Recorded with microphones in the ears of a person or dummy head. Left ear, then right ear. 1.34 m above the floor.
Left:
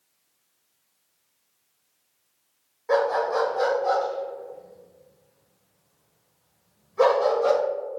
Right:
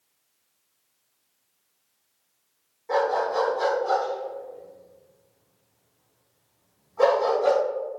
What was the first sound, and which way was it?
A dog barking, 50° left (ahead or behind).